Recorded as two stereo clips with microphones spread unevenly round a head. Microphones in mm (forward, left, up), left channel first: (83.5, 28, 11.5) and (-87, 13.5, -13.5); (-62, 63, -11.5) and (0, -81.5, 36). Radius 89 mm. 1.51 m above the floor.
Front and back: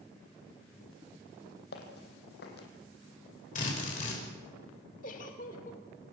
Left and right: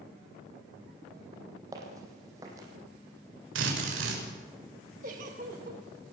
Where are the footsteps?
5° right, 3.5 m.